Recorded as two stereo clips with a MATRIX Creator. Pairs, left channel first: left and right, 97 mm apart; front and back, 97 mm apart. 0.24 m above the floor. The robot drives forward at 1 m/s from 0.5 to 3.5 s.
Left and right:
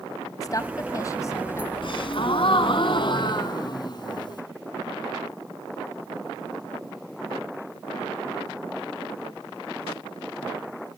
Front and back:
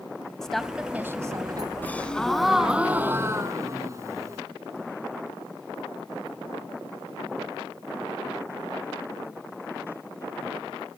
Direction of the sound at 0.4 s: 80° left.